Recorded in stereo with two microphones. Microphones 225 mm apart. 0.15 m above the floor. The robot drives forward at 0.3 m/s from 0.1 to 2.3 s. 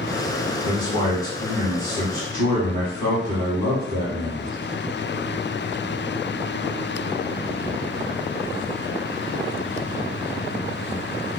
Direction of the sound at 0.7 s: 15° left (ahead or behind).